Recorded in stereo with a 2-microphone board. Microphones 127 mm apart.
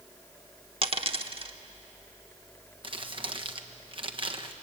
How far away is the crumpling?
About 1.3 m.